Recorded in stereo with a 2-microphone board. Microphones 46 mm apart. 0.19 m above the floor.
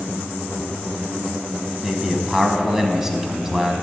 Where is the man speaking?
10° right (ahead or behind), 1.1 m.